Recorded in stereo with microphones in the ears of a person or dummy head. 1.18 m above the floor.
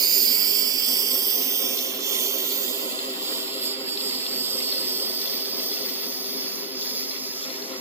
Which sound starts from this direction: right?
A lawn mower, at 0.0 s.